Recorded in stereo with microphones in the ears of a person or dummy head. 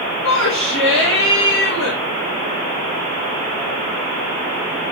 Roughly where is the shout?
Left.